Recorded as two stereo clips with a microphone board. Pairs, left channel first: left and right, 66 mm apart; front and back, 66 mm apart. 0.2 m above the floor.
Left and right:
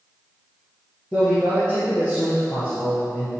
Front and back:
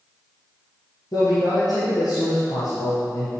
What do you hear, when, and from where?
1.1 s a man speaking: 15° left, 4 m